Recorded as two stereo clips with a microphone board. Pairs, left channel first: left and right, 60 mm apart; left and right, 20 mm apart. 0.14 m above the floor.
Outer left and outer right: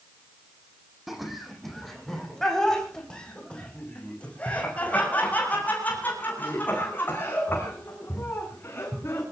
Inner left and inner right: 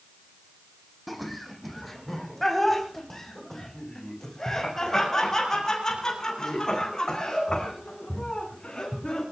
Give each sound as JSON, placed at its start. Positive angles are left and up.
{"t": 1.1, "sound": "laughter", "side_deg": -5, "distance_m": 6.5}